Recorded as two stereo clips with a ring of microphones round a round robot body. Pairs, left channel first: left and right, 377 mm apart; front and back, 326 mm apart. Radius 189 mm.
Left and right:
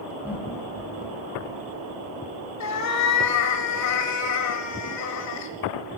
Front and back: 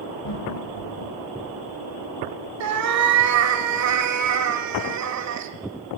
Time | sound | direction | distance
0.2 | laughter | 5° right | 2 m
2.6 | a cat meowing | 140° left | 1.2 m